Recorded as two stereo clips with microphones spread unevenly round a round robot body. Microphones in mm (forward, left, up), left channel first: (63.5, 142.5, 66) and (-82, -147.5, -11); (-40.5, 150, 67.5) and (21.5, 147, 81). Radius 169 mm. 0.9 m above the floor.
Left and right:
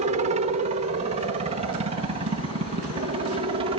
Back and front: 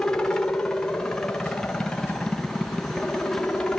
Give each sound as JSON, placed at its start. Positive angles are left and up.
{"t": 0.0, "sound": "a helicopter", "azimuth_deg": -130}